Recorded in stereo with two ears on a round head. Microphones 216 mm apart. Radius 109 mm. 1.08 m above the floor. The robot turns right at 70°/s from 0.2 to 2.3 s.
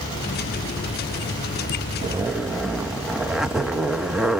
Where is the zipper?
20° right (ahead or behind), 0.5 m; by 4.4 s centre (ahead or behind), 0.5 m.